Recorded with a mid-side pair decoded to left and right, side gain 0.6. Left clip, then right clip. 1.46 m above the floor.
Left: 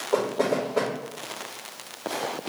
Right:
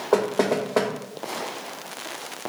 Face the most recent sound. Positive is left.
turn(degrees=-50)